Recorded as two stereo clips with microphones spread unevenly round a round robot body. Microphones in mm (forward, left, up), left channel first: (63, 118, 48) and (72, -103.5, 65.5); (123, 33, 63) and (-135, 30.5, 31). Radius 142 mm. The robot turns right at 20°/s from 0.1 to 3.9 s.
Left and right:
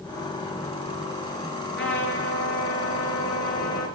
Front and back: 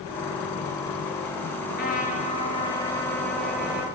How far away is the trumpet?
About 5 m.